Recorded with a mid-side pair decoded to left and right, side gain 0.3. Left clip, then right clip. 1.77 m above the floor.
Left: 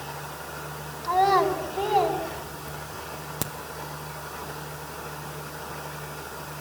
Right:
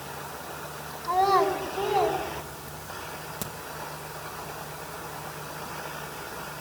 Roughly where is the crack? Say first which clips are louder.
Left 6 dB; ahead left.